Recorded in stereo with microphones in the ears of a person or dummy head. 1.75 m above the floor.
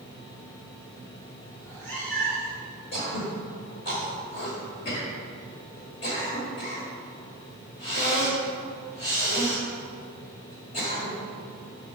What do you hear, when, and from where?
1.6 s a cat meowing: 10° left (ahead or behind), 2.5 m
2.9 s throat clearing: 35° left (ahead or behind), 1.7 m